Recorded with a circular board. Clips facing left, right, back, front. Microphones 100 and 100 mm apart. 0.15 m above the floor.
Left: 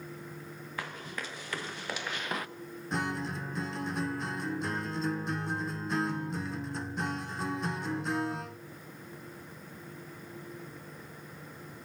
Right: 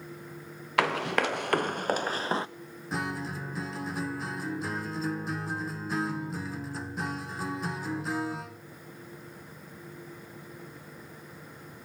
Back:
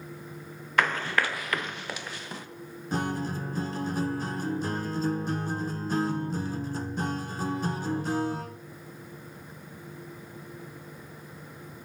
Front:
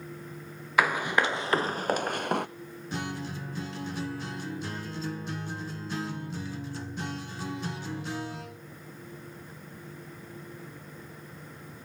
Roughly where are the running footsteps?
Right.